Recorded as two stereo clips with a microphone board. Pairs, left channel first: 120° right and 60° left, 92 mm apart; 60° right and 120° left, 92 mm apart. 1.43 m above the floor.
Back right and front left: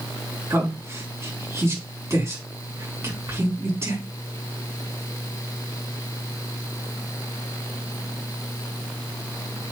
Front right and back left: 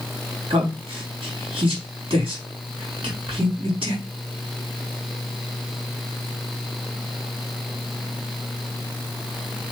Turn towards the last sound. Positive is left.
turn(degrees=120)